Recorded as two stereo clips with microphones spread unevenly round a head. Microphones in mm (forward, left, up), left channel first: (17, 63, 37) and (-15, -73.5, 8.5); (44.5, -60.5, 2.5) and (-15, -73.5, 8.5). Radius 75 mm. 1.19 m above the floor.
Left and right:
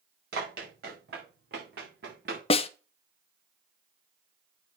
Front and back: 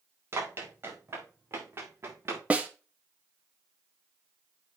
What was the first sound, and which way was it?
Running footsteps, 125° right.